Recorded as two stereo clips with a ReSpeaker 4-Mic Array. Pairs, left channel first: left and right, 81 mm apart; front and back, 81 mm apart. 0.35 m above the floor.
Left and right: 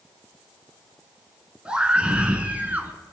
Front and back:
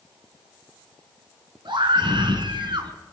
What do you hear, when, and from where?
1.6 s a scream: 170° right, 4.5 m; by 2.9 s 160° right, 4 m